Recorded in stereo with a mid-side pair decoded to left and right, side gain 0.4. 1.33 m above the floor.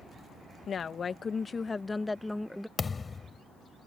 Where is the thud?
35° left.